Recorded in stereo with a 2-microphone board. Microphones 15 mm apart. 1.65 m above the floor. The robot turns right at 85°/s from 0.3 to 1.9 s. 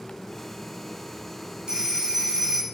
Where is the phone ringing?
70° right (ahead or behind), 5 m; by 2.6 s 80° right, 5 m.